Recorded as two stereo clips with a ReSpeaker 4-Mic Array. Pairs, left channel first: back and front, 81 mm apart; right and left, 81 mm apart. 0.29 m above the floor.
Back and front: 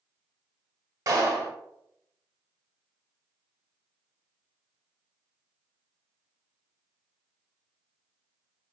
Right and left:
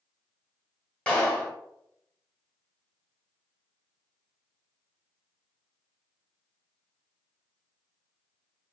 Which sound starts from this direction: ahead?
A clap, at 1.1 s.